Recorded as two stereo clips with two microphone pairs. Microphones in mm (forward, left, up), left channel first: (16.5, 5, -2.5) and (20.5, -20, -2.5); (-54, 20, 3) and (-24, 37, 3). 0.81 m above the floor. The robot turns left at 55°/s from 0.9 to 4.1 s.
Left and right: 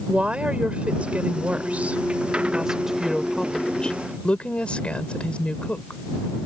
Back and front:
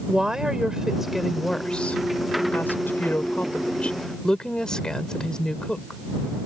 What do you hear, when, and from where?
0.1 s a woman speaking: 45° right; by 6.0 s 140° left